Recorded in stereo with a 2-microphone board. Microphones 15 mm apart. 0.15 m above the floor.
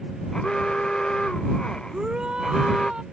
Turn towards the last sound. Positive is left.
turn(degrees=-85)